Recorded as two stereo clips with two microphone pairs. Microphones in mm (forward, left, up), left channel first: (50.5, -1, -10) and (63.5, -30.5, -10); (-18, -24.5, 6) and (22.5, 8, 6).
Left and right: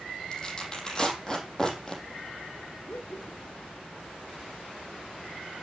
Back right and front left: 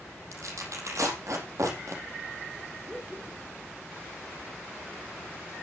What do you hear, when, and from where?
0.3 s tearing paper: 45° left, 5.5 m
2.9 s laughter: 110° left, 2.5 m